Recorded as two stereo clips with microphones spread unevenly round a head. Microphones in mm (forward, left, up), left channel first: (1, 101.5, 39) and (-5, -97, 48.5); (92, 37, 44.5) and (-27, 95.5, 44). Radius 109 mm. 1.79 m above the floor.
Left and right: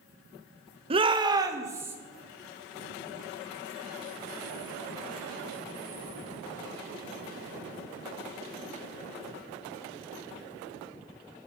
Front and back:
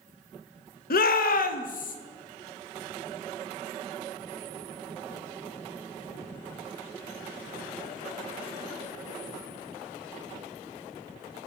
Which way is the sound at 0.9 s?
30° right.